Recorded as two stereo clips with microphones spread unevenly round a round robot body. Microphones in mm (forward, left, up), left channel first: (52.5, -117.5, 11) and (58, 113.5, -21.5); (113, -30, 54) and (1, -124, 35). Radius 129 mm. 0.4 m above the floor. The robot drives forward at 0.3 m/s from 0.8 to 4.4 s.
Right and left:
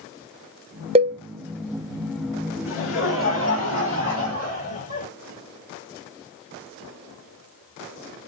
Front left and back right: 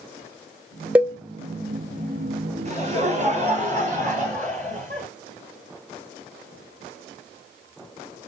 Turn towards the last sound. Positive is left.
turn(degrees=-130)